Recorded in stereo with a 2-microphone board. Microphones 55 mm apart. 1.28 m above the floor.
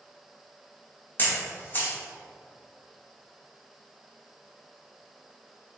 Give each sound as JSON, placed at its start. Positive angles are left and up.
{"t": 1.2, "sound": "a camera shutter", "side_deg": 35, "distance_m": 2.0}